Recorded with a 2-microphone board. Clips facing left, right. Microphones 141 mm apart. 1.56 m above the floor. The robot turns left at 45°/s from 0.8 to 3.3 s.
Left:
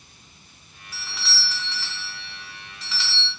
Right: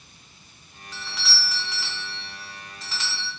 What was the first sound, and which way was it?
A doorbell, 10° left.